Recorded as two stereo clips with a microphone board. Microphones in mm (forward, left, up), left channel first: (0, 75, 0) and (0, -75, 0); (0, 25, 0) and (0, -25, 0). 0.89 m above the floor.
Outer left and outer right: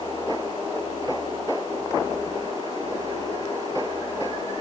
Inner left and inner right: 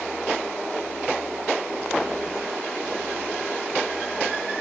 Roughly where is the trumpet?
I don't hear a trumpet.